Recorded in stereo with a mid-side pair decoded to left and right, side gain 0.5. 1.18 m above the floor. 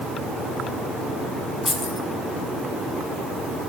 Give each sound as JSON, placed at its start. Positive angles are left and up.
{"t": 1.6, "sound": "keys jangling", "azimuth_deg": 15, "distance_m": 6.5}